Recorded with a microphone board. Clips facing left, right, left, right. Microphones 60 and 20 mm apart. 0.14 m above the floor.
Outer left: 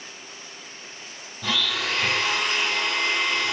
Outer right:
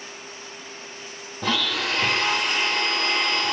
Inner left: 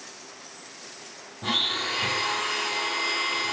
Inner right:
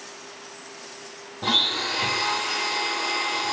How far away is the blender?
About 0.8 m.